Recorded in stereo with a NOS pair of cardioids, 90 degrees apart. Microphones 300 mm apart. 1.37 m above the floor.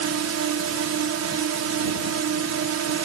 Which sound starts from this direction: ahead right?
A drone, at 0.0 s.